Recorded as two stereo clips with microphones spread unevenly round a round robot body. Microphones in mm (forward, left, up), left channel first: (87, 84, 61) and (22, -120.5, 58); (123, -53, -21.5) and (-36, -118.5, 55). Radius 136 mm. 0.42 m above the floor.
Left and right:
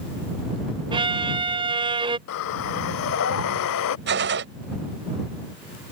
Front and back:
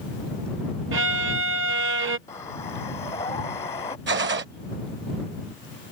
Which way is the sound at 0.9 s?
170° right.